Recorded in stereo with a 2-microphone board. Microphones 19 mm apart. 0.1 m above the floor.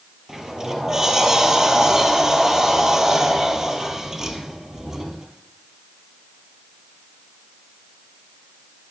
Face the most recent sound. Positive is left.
turn(degrees=-25)  # may be behind; listen again after turning